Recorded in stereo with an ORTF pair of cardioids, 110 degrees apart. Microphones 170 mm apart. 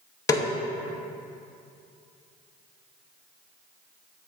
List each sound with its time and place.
0.3 s a snare drum: 20° left, 0.7 m